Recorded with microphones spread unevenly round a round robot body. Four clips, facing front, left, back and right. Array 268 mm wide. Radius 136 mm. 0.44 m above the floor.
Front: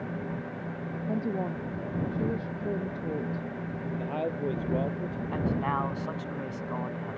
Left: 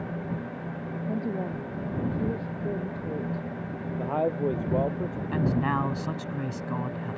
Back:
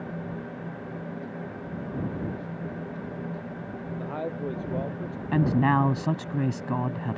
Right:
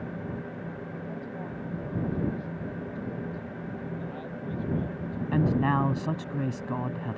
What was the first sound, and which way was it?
A woman speaking, 50° left.